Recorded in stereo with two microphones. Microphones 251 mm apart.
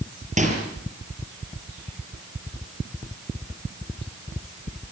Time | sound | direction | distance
0.4 | a microwave | 30° right (ahead or behind) | 6 m